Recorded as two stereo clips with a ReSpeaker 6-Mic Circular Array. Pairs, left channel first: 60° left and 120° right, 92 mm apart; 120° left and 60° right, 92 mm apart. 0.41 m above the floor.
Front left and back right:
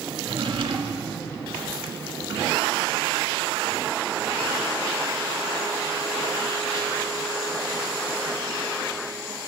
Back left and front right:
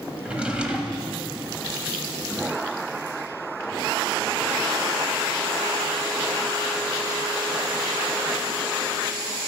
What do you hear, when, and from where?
0.2 s a drawer: 140° right, 0.8 m